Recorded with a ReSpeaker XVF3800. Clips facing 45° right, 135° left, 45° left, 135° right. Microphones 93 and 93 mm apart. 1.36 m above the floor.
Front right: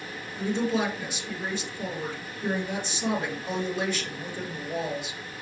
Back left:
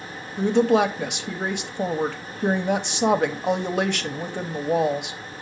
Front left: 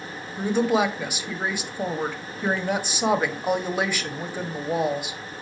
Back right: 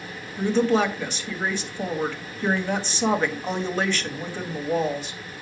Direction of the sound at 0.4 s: 125° left.